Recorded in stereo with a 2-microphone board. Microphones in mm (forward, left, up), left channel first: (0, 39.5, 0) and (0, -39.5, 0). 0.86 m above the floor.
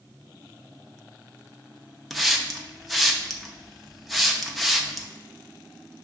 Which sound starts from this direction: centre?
A hiss, at 2.1 s.